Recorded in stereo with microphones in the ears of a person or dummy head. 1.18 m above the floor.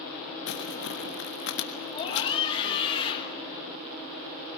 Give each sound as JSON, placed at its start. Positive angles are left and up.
{"t": 0.5, "sound": "crumpling", "side_deg": 60, "distance_m": 1.4}
{"t": 1.9, "sound": "a scream", "side_deg": 30, "distance_m": 1.5}